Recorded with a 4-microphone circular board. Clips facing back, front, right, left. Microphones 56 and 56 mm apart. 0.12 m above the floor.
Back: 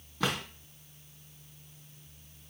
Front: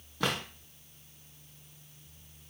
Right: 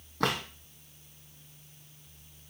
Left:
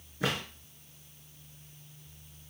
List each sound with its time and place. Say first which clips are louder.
0.2 s a drawer: even, right 3 dB; 85° right, 2.5 m